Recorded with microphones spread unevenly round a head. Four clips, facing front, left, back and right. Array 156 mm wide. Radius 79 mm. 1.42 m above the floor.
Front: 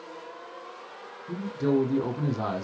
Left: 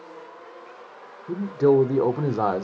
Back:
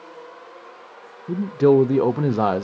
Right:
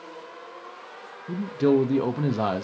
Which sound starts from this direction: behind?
A man speaking, at 1.3 s.